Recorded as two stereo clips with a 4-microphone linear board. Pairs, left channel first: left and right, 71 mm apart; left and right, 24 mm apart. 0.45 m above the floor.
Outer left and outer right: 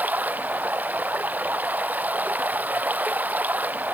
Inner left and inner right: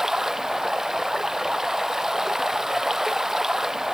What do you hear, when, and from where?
0.0 s running water: 20° right (ahead or behind)